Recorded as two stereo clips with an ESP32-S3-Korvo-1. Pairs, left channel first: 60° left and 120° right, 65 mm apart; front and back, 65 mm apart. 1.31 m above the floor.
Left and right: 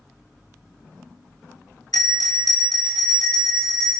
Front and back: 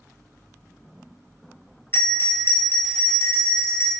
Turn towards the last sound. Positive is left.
turn(degrees=50)